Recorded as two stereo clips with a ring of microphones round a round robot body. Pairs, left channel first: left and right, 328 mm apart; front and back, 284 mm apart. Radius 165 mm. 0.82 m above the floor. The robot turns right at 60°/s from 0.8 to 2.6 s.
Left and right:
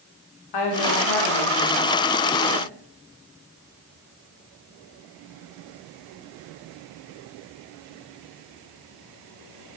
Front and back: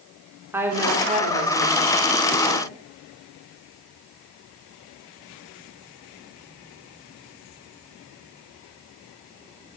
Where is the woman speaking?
100° left, 3 m; by 2.7 s 155° right, 3 m.